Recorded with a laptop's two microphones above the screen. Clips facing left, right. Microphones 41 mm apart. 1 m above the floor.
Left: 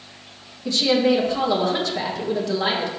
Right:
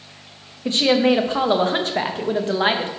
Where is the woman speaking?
40° right (ahead or behind), 0.6 m.